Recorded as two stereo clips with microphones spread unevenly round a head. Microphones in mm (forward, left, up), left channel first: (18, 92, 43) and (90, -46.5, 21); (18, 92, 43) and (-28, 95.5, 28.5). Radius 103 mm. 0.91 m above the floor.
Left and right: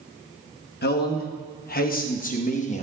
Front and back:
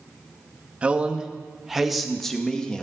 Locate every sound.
0.8 s a man speaking: 125° left, 1.8 m; by 2.8 s 75° left, 1.8 m